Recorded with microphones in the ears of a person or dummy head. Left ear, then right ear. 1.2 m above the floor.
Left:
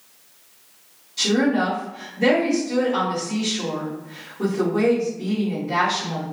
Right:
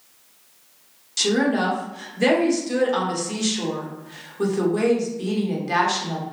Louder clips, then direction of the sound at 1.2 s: Even; 50° right (ahead or behind).